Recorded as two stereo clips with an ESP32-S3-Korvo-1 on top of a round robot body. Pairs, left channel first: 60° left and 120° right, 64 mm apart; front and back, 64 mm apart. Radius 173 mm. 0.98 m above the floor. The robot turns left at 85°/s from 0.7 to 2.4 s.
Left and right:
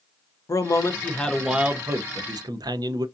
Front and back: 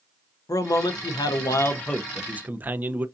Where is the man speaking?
30° left, 0.5 m; by 3.1 s 115° right, 0.5 m.